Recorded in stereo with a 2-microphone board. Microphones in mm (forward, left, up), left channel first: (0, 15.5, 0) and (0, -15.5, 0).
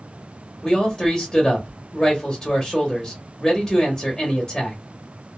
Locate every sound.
0.6 s a man speaking: 25° left (ahead or behind), 1.3 m